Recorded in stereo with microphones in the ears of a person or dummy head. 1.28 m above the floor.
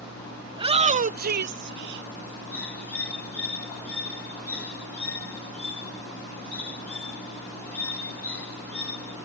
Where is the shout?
25° right (ahead or behind); by 2.1 s 75° right (ahead or behind).